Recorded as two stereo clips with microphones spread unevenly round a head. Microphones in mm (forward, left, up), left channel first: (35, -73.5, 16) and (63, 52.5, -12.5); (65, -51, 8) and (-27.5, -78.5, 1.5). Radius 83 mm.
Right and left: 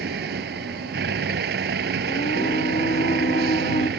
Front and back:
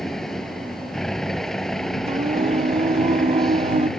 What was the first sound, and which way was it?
A vehicle, 105° left.